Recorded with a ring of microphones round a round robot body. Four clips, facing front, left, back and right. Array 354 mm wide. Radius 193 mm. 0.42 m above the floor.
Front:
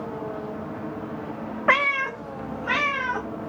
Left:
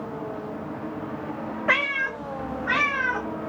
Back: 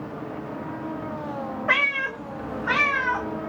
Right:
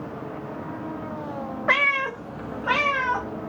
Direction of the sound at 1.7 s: 15° right.